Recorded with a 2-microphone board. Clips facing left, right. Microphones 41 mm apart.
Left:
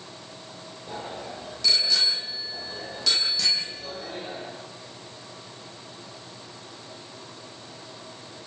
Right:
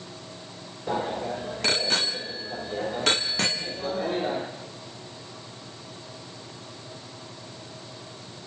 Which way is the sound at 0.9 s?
50° right (ahead or behind).